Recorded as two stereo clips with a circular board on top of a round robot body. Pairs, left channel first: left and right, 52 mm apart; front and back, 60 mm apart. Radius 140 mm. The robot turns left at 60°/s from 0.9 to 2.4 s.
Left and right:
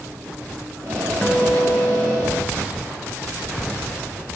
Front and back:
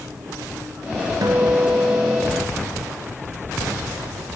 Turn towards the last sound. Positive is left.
turn(degrees=95)